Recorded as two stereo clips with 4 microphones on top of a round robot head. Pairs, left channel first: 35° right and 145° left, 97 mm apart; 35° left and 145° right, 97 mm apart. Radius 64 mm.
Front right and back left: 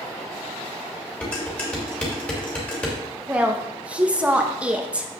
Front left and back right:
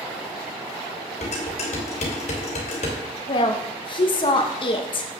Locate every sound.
1.2 s dishes clattering: 40° left, 3 m
3.3 s a woman speaking: 65° left, 1.4 m